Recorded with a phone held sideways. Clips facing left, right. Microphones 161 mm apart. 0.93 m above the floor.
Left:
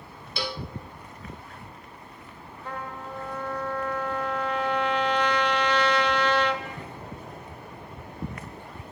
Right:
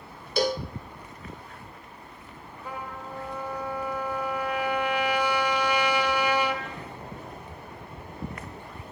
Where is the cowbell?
45° right (ahead or behind), 0.6 m.